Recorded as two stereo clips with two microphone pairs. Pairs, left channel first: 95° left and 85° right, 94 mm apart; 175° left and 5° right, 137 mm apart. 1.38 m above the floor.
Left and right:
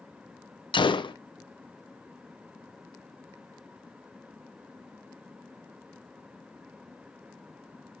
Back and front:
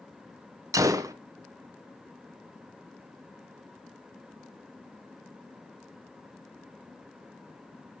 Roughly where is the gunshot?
Ahead left.